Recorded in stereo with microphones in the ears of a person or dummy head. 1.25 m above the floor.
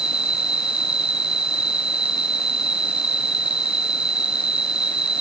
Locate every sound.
0.0 s an insect: 5° right (ahead or behind)